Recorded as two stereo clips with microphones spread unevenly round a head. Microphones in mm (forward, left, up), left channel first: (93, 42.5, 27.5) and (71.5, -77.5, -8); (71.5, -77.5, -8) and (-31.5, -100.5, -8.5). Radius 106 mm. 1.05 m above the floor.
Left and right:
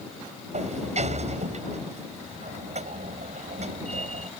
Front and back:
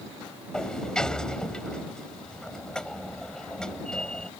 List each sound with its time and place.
0.5 s a sliding door: 70° right